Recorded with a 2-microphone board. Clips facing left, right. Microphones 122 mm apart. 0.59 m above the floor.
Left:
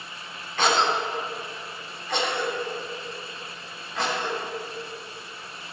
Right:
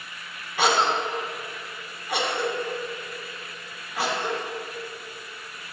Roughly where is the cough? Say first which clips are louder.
Right 1 dB; centre.